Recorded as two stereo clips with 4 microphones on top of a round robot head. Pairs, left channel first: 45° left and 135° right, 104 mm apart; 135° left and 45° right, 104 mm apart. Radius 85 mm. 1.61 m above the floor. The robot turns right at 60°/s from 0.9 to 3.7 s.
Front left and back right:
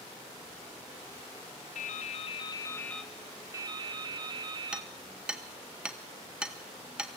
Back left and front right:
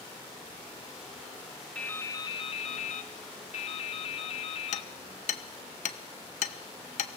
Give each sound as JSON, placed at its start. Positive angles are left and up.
{"t": 1.8, "sound": "dripping", "azimuth_deg": 55, "distance_m": 1.4}
{"t": 4.7, "sound": "hammering", "azimuth_deg": 145, "distance_m": 1.1}